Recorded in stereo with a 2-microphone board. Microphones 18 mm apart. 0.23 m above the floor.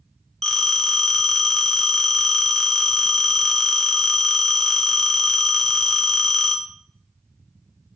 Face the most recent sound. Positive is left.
turn(degrees=15)  # may be behind; listen again after turning